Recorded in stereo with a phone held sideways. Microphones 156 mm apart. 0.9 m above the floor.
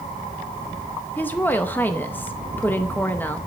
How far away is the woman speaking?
About 0.7 m.